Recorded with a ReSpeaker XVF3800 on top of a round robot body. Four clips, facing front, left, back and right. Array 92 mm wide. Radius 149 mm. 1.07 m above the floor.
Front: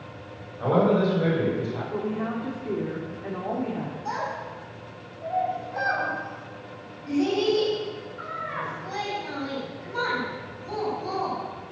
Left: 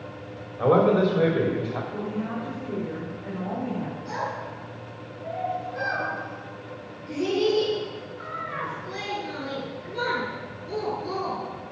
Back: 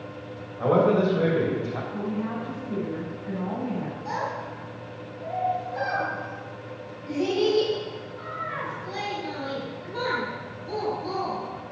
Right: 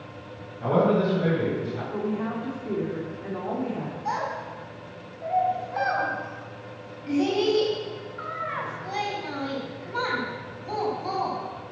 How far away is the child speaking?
About 5 m.